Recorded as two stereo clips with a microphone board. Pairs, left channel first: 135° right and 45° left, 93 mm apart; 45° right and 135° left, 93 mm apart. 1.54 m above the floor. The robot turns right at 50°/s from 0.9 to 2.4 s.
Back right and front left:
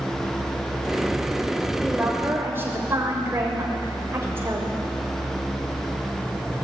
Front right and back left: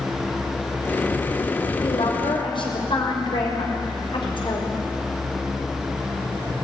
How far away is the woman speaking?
About 6 m.